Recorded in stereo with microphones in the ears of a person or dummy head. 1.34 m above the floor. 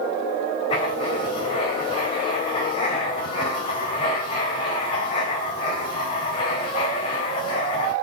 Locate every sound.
0.7 s writing: 35° left (ahead or behind), 3.5 m